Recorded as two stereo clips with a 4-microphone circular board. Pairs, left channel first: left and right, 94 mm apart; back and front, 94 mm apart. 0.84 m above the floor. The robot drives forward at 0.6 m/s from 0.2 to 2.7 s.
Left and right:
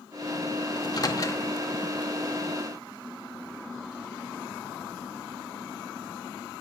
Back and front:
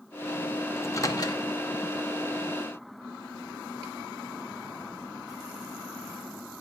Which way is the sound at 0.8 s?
125° left.